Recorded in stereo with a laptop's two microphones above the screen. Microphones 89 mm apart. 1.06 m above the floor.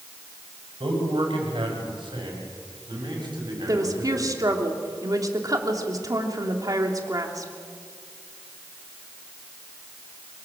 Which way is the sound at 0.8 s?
75° right (ahead or behind).